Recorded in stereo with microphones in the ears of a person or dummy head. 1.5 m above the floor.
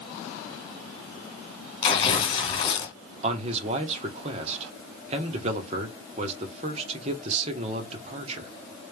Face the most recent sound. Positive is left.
turn(degrees=-40)  # may be behind; listen again after turning